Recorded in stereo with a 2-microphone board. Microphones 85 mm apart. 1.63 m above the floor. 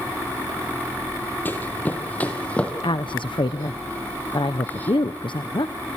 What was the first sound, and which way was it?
Running footsteps, 25° left (ahead or behind).